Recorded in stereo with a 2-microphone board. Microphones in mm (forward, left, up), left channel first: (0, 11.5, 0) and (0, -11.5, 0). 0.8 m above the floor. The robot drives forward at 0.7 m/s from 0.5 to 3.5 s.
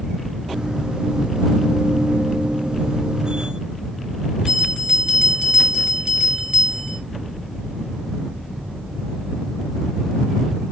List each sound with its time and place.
4.5 s a bell: 45° right (ahead or behind), 4.5 m